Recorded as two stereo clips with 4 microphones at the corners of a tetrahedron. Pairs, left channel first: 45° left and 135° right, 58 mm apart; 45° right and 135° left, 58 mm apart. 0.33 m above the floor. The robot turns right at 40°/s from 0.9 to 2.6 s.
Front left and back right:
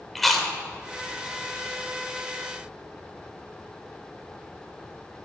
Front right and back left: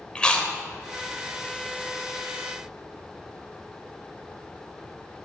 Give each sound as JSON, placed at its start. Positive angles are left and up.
{"t": 0.1, "sound": "chewing", "azimuth_deg": -35, "distance_m": 0.9}